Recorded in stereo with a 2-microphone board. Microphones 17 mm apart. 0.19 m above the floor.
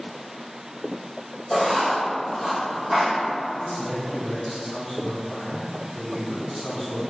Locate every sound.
1.5 s writing: 10° left (ahead or behind), 1.2 m
3.6 s a man speaking: 20° left (ahead or behind), 1.9 m